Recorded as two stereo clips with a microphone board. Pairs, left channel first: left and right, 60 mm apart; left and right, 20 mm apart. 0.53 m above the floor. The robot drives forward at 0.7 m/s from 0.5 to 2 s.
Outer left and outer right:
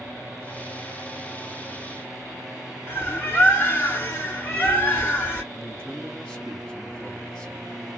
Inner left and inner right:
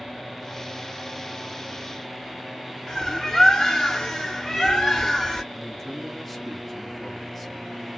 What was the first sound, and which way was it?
A bird, 35° left (ahead or behind).